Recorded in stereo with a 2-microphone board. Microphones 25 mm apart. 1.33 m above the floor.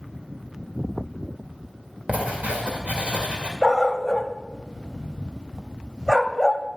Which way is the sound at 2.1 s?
65° right (ahead or behind).